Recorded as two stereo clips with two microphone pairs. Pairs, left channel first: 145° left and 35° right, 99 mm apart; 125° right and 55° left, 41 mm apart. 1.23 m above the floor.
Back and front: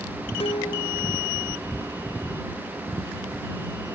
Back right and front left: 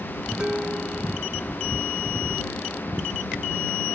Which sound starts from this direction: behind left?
Dishes clattering, at 0.4 s.